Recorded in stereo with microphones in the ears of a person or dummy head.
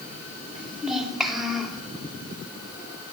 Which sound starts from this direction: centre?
A child speaking, at 0.6 s.